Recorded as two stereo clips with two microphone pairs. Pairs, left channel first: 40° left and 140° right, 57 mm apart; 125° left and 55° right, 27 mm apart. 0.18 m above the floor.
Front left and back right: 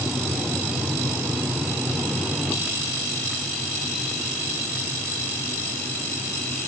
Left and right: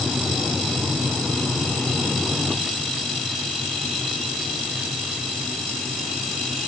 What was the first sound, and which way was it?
Only background noise.